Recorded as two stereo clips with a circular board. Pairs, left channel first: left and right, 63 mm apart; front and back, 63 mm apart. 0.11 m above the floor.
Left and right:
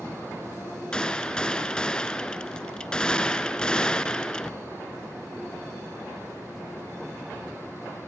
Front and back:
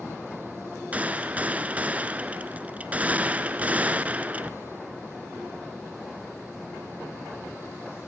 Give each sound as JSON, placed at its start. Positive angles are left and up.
{"t": 0.9, "sound": "a gunshot", "azimuth_deg": 150, "distance_m": 0.9}